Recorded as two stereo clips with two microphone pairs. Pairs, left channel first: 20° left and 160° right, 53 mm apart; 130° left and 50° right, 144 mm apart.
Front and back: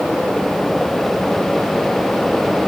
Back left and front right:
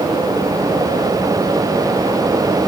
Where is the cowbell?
I don't hear a cowbell.